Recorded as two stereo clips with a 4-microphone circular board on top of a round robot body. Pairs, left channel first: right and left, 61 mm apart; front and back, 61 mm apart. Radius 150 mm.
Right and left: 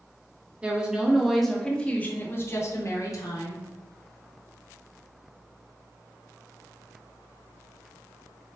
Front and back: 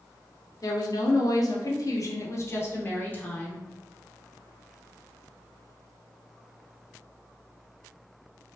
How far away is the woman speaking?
About 1.1 m.